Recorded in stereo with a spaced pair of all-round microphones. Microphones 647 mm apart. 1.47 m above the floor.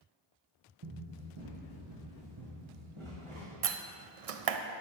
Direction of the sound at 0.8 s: 45° right (ahead or behind).